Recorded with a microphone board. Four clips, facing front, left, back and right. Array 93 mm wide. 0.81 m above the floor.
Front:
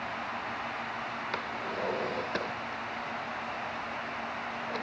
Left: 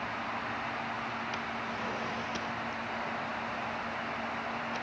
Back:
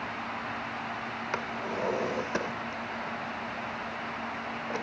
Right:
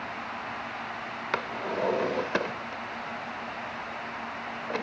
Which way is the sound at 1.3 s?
105° right.